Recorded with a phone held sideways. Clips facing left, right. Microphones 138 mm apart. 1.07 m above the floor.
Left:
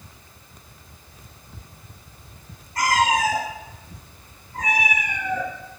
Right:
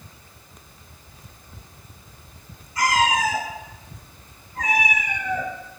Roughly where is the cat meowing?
Left.